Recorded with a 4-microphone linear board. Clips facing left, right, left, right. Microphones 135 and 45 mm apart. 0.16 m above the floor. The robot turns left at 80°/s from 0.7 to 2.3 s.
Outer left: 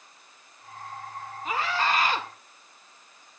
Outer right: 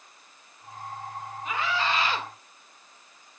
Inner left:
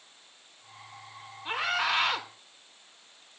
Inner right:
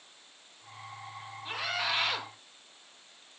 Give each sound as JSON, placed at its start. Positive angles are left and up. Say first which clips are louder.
{"t": 1.4, "sound": "a scream", "louder": "outer left 2 dB, inner left 5 dB", "azimuth_deg": 130, "distance_m": 1.4}